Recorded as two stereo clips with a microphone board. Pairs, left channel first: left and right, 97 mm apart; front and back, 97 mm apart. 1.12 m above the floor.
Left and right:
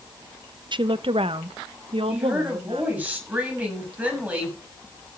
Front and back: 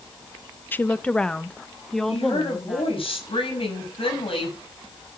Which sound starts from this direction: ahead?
A woman speaking, at 2.1 s.